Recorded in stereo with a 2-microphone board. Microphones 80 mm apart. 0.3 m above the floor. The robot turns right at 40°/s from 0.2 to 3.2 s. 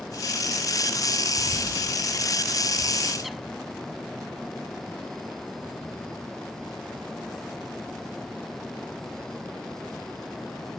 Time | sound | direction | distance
1.4 | a bird | 70° left (ahead or behind) | ?